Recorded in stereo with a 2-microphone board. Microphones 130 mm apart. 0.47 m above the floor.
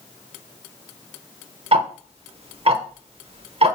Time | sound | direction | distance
1.7 | ticking | 45° right (ahead or behind) | 0.9 m